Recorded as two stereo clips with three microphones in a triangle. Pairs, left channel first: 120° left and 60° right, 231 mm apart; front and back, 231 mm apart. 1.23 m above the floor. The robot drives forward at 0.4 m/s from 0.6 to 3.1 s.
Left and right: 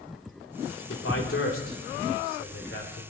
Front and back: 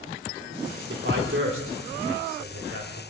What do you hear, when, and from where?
0.9 s a man speaking: 145° left, 3 m; by 3.0 s 155° left, 3.5 m